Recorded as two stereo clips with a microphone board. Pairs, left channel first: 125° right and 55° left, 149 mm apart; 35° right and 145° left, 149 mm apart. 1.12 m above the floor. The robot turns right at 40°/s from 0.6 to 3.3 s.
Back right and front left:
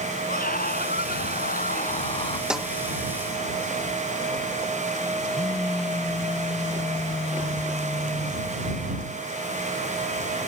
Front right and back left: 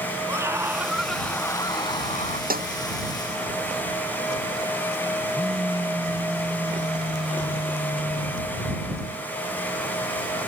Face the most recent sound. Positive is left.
turn(degrees=-165)